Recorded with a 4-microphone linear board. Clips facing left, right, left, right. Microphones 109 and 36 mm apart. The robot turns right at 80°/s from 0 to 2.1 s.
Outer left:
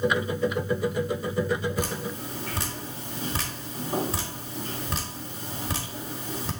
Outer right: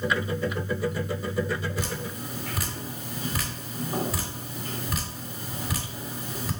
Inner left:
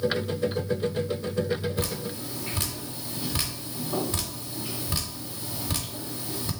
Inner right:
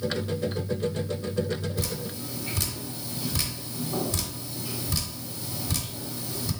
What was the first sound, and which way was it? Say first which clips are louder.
Dripping: outer left 2 dB, inner left 2 dB; 55° left (ahead or behind).